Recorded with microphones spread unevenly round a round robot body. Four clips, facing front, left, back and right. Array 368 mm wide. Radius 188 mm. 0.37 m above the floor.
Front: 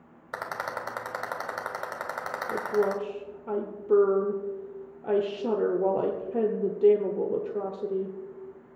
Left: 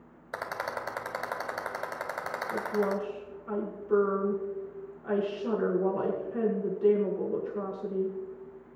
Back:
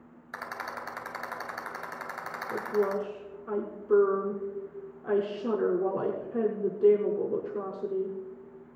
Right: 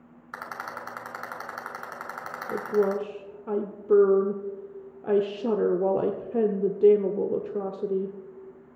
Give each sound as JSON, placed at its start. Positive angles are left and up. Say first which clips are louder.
{"t": 0.3, "sound": "a rattle", "louder": "left 2 dB, front 4 dB", "azimuth_deg": 45, "distance_m": 2.5}
{"t": 2.5, "sound": "a woman speaking", "louder": "right 5 dB, front 2 dB", "azimuth_deg": -85, "distance_m": 1.2}